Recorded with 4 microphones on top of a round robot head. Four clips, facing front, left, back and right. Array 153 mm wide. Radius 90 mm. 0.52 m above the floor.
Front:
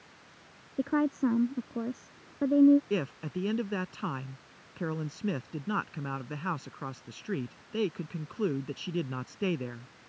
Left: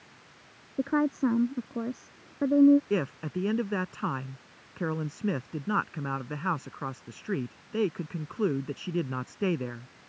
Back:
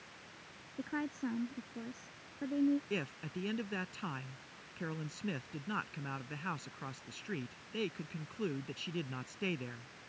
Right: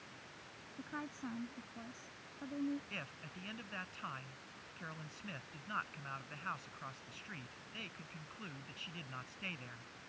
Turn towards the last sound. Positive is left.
turn(degrees=70)